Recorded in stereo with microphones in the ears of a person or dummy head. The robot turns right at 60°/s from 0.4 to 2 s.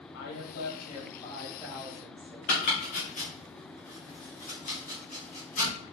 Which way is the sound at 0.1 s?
100° left.